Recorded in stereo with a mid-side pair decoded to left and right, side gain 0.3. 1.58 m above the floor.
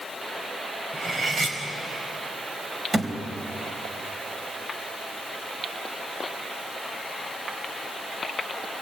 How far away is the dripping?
No dripping in this recording.